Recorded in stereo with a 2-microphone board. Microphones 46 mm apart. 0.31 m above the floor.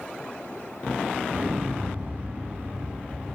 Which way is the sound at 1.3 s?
40° right (ahead or behind).